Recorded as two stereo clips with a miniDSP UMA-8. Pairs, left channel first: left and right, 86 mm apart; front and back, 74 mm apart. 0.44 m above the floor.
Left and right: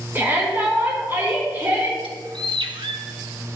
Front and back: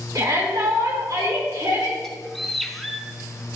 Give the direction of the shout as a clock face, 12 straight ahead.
5 o'clock.